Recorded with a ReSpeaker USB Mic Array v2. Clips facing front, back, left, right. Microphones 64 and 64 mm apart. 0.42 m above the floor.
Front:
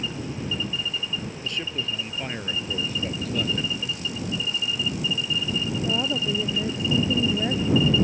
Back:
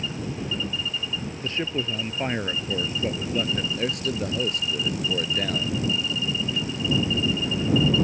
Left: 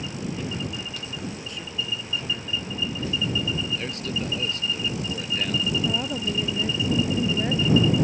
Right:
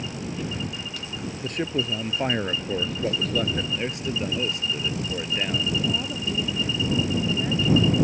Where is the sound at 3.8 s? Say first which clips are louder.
Back 5 dB, right 2 dB; 160° right.